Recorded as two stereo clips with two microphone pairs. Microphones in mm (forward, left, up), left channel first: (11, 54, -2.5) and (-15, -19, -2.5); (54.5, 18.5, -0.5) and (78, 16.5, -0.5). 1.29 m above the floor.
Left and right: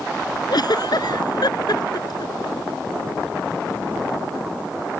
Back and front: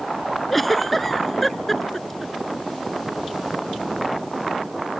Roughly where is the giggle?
Left.